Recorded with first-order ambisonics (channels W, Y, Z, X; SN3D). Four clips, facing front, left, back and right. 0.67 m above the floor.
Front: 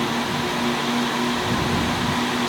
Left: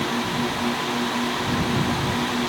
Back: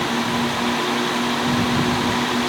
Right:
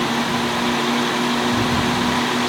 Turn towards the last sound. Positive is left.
No sound to turn to.